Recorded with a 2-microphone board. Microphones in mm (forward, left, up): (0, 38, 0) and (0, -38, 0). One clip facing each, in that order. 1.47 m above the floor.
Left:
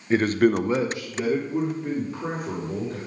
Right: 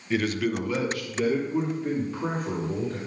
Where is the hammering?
I don't hear hammering.